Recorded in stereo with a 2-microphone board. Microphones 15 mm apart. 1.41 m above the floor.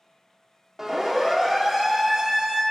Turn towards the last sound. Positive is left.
turn(degrees=-35)  # may be behind; listen again after turning